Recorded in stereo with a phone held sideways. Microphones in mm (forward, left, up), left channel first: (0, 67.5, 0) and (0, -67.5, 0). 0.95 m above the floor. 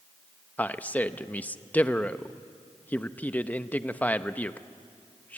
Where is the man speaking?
10° left (ahead or behind), 0.7 m.